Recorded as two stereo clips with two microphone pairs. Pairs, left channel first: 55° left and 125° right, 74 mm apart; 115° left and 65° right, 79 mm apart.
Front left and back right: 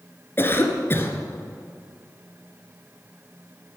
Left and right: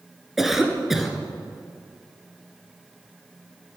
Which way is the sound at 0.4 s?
20° left.